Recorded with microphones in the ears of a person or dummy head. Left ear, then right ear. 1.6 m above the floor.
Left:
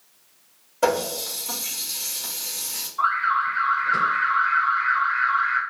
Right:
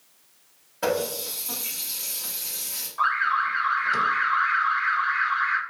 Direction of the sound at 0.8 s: 5° left (ahead or behind).